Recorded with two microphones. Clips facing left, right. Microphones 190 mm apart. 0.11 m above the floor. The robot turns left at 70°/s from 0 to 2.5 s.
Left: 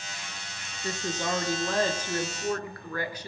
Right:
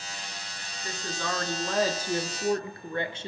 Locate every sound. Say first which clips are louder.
0.8 s a woman speaking: left 3 dB; 65° left, 1.2 m; by 3.3 s 55° right, 1.2 m